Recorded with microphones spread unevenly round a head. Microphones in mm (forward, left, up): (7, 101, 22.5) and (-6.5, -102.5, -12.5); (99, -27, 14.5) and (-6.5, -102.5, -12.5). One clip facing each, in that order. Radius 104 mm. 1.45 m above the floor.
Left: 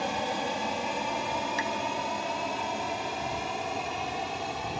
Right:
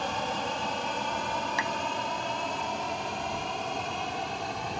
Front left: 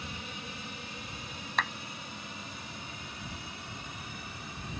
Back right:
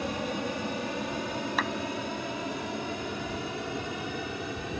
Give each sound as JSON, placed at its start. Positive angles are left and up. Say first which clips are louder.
{"t": 0.0, "sound": "an aircraft", "louder": "left 2 dB, back right 12 dB", "azimuth_deg": 170}
{"t": 1.6, "sound": "a clap", "louder": "left 1 dB, back right 1 dB", "azimuth_deg": -60}